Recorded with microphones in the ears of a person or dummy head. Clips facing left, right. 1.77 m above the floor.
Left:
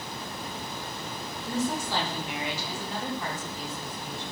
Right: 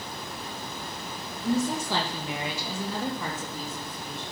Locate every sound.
1.4 s a woman speaking: 50° right (ahead or behind), 2.5 m; by 4.2 s 80° right, 4 m